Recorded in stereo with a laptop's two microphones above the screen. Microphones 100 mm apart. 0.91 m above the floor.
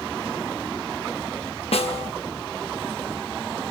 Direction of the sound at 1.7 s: 75° left (ahead or behind).